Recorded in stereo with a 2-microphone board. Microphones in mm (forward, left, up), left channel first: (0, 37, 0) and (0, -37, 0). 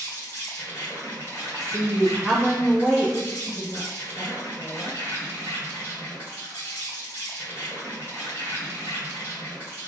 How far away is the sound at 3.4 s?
About 0.9 m.